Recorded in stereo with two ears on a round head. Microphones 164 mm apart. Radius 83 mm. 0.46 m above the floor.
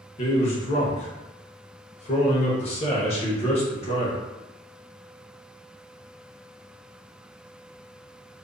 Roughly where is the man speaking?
Left.